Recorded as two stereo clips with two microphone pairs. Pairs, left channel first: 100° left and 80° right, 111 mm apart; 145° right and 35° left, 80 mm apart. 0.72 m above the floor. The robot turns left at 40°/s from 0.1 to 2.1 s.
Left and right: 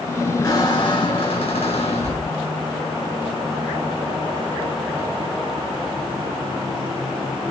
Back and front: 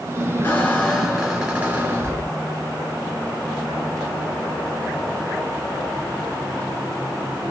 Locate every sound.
0.4 s a squeak: 155° left, 1.3 m; by 2.4 s 85° left, 1.3 m